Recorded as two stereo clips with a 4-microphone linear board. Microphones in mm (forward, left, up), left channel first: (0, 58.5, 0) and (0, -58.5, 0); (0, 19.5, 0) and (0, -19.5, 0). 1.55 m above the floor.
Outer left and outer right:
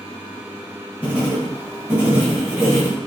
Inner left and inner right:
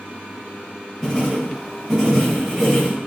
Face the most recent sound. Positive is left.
turn(degrees=-10)  # may be behind; listen again after turning